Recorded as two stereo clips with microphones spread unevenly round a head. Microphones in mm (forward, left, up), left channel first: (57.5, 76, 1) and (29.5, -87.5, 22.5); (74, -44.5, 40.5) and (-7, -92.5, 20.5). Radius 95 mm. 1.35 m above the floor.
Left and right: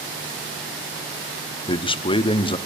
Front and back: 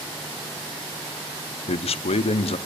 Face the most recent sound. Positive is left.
turn(degrees=30)